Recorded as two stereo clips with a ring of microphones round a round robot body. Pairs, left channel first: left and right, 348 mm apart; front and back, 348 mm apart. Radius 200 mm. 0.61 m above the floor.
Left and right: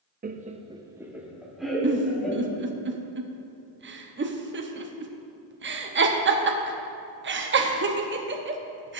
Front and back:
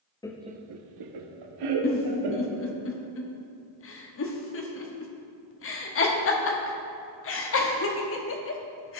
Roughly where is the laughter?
Ahead right.